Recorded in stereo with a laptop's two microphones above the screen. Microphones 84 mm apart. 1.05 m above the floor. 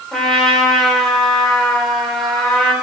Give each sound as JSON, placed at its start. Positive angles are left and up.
{"t": 0.1, "sound": "a trumpet", "side_deg": 5, "distance_m": 2.0}